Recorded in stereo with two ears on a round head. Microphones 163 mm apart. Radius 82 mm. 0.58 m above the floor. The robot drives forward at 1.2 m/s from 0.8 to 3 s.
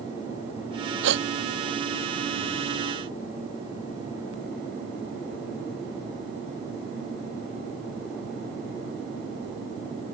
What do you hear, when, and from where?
1.0 s a gasp: 75° right (ahead or behind); by 1.3 s 70° right (ahead or behind)